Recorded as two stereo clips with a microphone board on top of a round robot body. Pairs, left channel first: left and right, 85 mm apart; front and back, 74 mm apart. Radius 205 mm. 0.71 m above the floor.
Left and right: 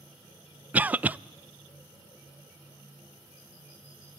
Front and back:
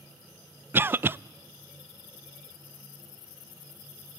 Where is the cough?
145° right, 0.5 m.